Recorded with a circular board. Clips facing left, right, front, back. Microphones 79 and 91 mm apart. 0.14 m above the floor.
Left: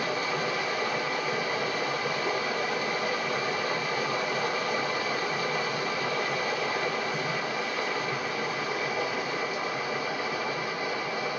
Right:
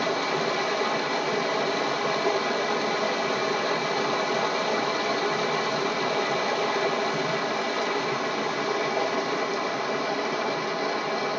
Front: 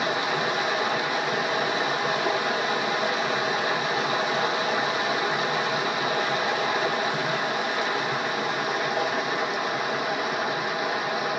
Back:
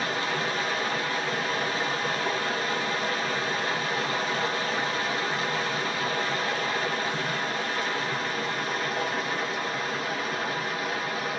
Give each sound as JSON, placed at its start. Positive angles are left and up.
{"t": 0.0, "sound": "running water", "azimuth_deg": -75, "distance_m": 1.1}